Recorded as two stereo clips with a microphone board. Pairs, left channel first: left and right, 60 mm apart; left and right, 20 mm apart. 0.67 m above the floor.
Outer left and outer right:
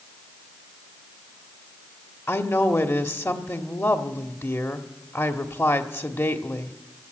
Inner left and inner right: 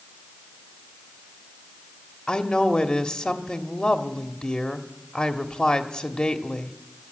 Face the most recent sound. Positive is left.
turn(degrees=50)  # may be behind; listen again after turning